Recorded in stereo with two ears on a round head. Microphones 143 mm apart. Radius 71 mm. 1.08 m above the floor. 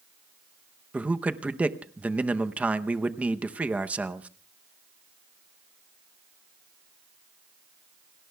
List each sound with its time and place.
0.9 s a man speaking: 10° right (ahead or behind), 0.7 m